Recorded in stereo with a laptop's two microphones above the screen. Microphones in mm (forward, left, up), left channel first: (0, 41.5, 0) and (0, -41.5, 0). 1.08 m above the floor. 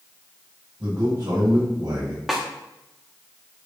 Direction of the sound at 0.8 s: 60° right (ahead or behind).